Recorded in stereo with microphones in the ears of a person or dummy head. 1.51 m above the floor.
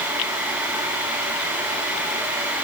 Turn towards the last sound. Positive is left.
No sound to turn to.